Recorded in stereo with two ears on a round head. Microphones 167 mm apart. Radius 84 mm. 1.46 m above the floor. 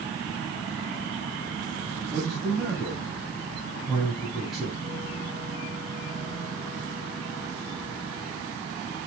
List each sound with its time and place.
2.1 s a man speaking: centre (ahead or behind), 8.5 m